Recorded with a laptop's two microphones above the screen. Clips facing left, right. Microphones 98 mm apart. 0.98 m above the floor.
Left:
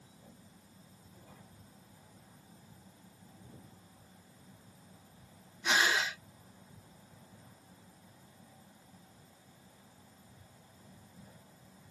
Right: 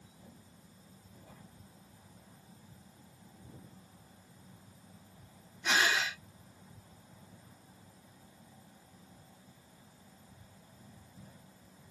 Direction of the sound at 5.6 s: 5° left (ahead or behind).